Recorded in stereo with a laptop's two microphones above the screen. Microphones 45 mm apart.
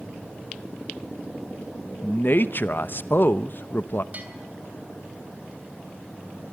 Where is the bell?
35° right (ahead or behind), 3.5 m.